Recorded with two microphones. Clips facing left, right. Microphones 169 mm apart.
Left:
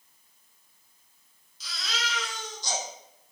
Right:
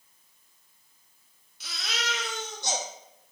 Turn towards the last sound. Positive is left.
turn(degrees=-60)  # may be behind; listen again after turning